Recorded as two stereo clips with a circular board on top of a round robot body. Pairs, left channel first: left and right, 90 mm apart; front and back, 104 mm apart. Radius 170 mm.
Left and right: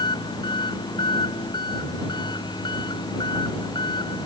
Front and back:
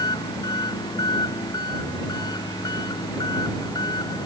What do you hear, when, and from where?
0.0 s an engine running: 50° left